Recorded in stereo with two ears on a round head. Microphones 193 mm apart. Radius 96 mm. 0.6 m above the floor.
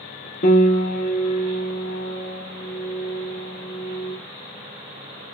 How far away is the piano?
About 0.8 m.